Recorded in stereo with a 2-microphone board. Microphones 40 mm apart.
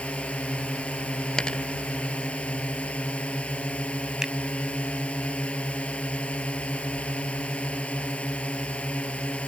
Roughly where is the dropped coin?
Left.